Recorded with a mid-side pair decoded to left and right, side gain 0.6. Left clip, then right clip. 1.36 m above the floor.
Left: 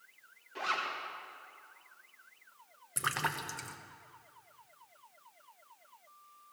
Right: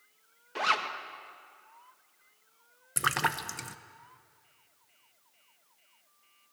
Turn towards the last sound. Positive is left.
turn(degrees=-30)